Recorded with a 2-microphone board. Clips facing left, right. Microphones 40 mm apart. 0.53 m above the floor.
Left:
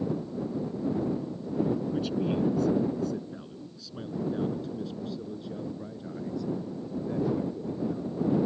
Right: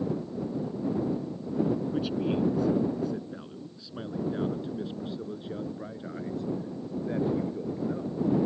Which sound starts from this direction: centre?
A man speaking, at 1.9 s.